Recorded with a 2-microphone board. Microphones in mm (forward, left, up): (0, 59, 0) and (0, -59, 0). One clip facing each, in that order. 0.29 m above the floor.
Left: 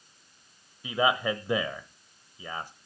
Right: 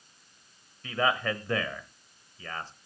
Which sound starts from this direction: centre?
A man speaking, at 0.8 s.